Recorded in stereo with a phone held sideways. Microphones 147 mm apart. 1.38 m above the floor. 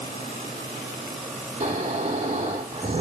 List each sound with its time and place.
1.6 s snoring: 50° right (ahead or behind), 3.5 m